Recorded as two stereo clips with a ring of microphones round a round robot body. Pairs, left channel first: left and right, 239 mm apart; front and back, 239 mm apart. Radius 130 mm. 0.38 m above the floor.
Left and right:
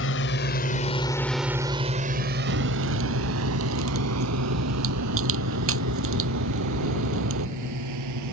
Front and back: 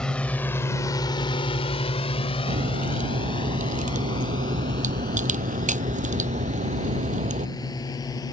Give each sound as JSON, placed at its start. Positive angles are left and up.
{"t": 0.0, "sound": "a drone", "azimuth_deg": 85}
{"t": 2.5, "sound": "a crack", "azimuth_deg": -120}